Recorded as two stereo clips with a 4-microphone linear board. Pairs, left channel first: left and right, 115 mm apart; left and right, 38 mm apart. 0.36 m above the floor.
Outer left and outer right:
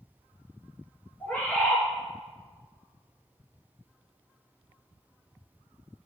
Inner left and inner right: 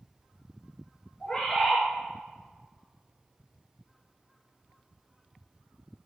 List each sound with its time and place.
1.2 s a bird: 15° left (ahead or behind), 4 m